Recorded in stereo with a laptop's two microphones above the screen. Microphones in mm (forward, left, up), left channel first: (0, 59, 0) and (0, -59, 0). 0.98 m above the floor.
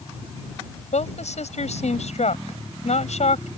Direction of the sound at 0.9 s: 70° left (ahead or behind).